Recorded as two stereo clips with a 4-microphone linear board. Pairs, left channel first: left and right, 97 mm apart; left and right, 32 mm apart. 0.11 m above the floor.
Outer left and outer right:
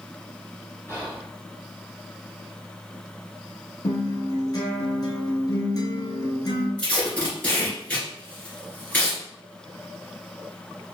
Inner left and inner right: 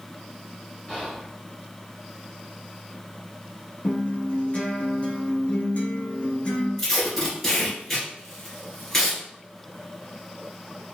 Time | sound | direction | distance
0.9 | whispering | 30° left (ahead or behind) | 1.3 m
3.8 | a guitar | 45° left (ahead or behind) | 1.1 m
6.8 | tape being pulled | 15° left (ahead or behind) | 1.6 m